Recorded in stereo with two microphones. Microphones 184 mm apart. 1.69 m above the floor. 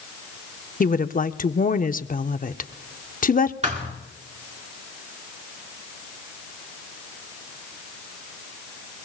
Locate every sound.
0.8 s a woman speaking: 45° left (ahead or behind), 0.6 m
3.6 s a thud: 40° right (ahead or behind), 1.7 m